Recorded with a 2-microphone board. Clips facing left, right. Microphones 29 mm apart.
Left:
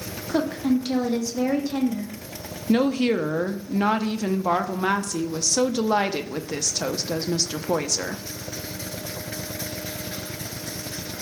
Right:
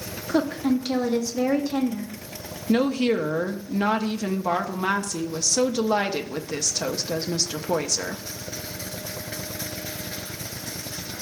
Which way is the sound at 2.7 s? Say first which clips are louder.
Left 1 dB; 5° left (ahead or behind).